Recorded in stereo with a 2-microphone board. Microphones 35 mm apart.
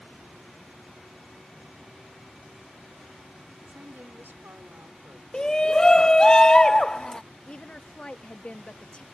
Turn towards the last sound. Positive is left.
turn(degrees=25)  # may be behind; listen again after turning